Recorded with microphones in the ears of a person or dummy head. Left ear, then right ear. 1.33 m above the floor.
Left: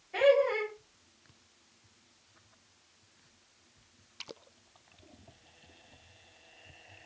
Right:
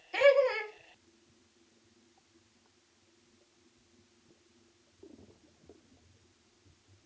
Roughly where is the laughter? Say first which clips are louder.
Even; right.